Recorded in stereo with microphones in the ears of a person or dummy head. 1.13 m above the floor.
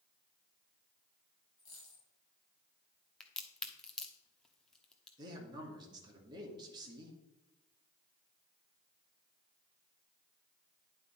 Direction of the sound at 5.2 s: 25° right (ahead or behind).